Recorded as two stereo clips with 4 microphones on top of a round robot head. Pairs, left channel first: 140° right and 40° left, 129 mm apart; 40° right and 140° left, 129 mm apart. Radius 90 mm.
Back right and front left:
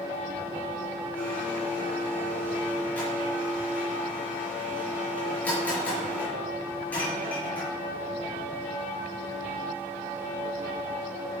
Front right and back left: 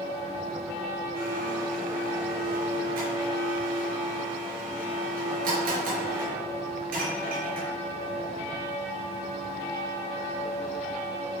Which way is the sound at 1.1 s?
145° left.